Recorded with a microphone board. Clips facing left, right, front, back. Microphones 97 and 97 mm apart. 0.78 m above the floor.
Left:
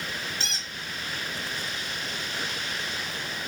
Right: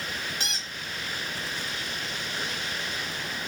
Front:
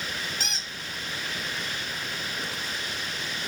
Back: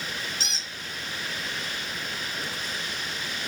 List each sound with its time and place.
0.4 s a squeak: 20° right, 0.8 m